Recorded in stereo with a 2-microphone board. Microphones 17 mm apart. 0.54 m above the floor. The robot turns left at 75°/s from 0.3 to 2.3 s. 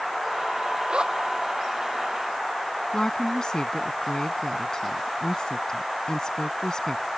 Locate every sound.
0.9 s a zipper: 70° right (ahead or behind); by 1.1 s 50° right (ahead or behind)
2.9 s a woman speaking: 45° left (ahead or behind)